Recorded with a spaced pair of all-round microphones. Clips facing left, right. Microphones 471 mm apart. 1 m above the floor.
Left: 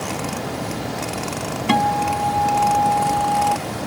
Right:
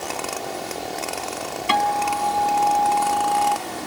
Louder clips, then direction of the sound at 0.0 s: Left 4 dB; 80° left.